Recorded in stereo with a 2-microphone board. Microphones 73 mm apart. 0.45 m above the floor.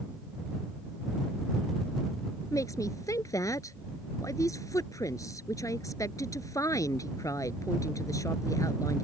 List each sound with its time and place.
2.5 s a woman speaking: 45° left (ahead or behind)